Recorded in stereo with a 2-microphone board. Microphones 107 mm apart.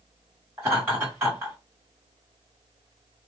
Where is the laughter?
20° right (ahead or behind), 2 m.